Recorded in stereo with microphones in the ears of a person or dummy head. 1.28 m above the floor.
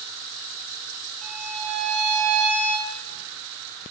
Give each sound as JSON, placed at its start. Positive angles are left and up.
{"t": 1.2, "sound": "a violin", "side_deg": -20, "distance_m": 1.4}